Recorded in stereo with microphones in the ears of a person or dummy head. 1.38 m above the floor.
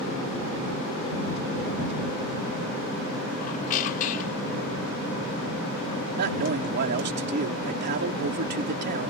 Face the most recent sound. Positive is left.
turn(degrees=-55)  # may be behind; listen again after turning